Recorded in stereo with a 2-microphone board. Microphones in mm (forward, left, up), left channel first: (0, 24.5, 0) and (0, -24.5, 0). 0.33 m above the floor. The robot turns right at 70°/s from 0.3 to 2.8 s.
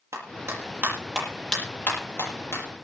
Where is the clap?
75° right (ahead or behind), 8 m; by 2.6 s 85° left, 8 m.